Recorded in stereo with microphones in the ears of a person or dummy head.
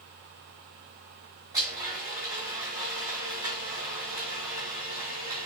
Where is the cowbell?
No cowbell in this recording.